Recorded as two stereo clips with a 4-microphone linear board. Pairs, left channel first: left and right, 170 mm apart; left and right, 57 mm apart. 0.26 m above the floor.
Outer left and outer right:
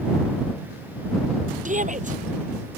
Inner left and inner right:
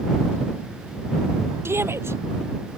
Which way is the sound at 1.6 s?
50° right (ahead or behind).